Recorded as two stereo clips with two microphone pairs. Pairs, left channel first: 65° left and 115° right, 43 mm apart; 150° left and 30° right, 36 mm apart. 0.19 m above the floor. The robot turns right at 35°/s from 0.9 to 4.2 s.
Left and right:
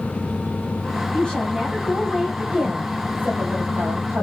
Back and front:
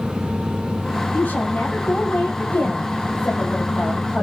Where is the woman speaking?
120° left, 5.5 m; by 4.2 s 130° right, 5.5 m.